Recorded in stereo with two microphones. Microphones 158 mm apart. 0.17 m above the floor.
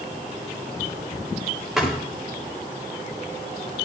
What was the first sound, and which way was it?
A thud, centre (ahead or behind).